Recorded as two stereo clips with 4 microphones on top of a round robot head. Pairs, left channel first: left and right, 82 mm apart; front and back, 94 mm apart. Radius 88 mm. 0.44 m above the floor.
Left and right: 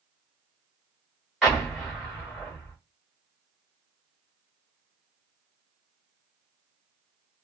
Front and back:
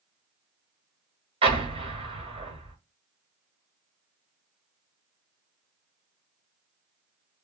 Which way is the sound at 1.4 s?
Straight behind.